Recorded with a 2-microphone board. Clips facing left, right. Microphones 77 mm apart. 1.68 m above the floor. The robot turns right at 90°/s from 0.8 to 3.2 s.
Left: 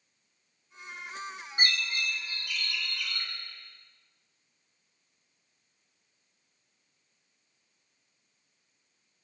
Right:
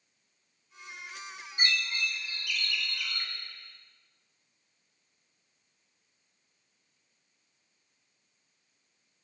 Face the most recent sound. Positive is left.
turn(degrees=-160)